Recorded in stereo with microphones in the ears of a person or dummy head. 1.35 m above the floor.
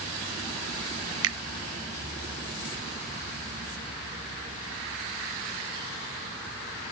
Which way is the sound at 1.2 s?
70° right (ahead or behind).